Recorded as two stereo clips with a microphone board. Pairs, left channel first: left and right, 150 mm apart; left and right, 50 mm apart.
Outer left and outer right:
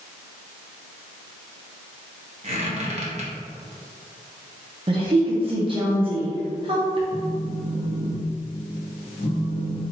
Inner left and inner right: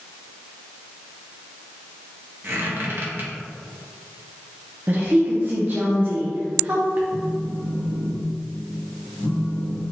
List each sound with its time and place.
2.4 s a squeak: 50° right (ahead or behind), 1.0 m
4.9 s a woman speaking: 35° right (ahead or behind), 0.6 m
7.1 s a phone buzzing: 70° left (ahead or behind), 1.1 m